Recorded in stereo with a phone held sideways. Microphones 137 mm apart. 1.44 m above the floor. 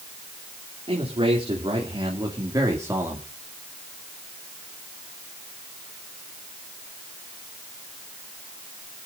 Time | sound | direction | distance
0.9 | a man speaking | 45° right (ahead or behind) | 3 m